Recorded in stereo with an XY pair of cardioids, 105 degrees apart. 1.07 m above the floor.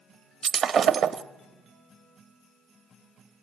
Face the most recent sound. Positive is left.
turn(degrees=-50)